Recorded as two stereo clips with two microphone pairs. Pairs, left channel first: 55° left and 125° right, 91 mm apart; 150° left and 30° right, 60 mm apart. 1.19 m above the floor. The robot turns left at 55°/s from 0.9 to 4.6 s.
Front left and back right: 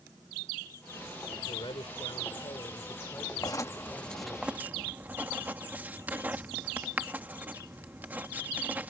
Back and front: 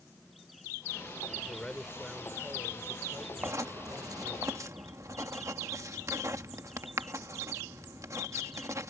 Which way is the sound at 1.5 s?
85° left.